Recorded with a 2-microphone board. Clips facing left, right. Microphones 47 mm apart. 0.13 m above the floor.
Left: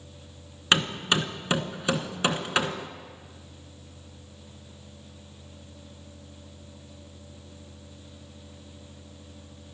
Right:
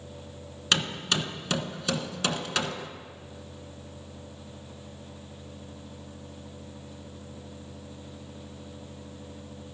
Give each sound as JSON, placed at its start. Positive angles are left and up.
{"t": 0.7, "sound": "hammering", "side_deg": 25, "distance_m": 1.1}